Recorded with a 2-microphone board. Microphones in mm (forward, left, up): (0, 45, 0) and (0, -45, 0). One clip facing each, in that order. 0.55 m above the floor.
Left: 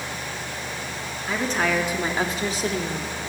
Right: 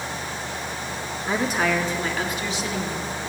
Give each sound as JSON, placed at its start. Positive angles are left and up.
{"t": 1.3, "sound": "a woman speaking", "side_deg": -20, "distance_m": 0.9}